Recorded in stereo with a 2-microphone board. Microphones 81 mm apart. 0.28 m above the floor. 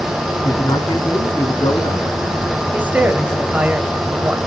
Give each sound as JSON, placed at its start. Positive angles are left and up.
{"t": 0.4, "sound": "a man speaking", "side_deg": 60, "distance_m": 1.9}
{"t": 2.7, "sound": "a woman speaking", "side_deg": -20, "distance_m": 1.2}